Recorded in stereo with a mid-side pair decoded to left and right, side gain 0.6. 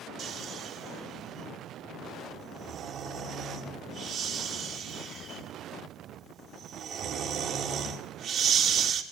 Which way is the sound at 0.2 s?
55° right.